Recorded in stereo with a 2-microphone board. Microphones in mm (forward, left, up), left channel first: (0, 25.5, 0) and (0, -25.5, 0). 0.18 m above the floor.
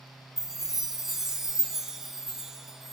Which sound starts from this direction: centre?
A chime, at 0.4 s.